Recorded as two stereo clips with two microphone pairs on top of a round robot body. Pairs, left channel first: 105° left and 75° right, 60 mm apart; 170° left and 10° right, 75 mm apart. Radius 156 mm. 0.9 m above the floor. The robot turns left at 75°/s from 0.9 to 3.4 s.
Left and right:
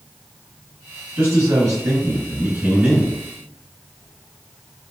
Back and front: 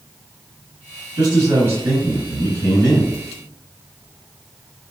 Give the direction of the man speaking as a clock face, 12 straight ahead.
1 o'clock.